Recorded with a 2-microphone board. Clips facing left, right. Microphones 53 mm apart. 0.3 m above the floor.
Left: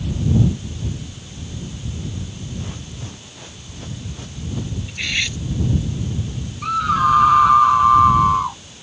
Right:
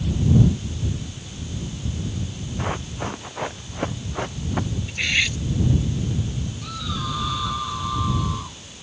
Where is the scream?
55° left (ahead or behind).